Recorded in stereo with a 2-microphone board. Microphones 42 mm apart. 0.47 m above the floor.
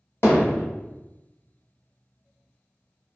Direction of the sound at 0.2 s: 75° left (ahead or behind).